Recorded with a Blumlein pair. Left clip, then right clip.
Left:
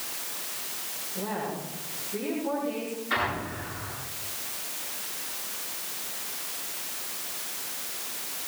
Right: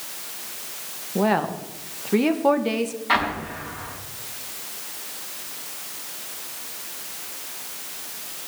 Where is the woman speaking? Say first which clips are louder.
Right 12 dB; 40° right, 2.0 m.